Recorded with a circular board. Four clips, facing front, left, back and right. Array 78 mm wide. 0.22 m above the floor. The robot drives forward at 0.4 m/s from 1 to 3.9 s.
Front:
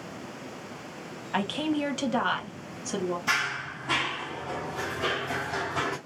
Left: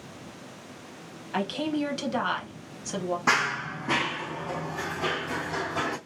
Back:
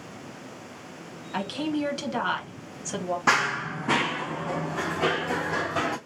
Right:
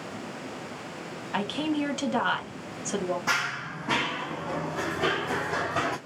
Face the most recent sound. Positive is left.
turn(degrees=-145)